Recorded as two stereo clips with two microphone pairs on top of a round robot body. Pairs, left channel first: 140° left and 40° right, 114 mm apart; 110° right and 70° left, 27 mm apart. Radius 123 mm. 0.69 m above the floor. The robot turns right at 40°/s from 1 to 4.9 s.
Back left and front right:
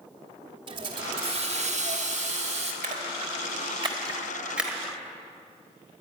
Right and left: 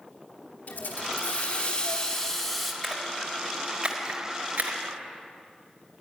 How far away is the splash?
About 1.5 m.